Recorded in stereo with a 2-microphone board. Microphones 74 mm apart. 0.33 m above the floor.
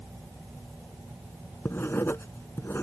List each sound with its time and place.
1.6 s writing: 30° left (ahead or behind)